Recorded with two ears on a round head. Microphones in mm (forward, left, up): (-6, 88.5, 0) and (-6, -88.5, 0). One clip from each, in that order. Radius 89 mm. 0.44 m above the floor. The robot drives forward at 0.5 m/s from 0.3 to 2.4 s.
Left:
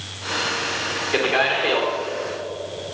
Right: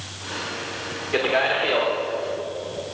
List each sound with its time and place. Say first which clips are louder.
1.1 s a man speaking: even; 15° left (ahead or behind), 1.2 m